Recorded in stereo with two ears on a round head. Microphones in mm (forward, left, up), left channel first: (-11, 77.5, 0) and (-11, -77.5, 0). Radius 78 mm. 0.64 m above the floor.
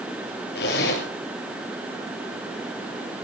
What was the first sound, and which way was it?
A zipper, 75° left (ahead or behind).